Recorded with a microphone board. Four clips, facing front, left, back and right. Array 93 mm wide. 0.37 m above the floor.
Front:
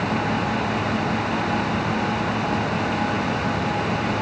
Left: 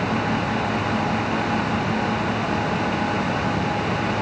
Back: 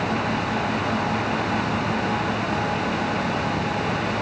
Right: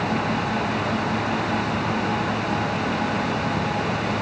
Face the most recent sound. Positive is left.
No sound to turn to.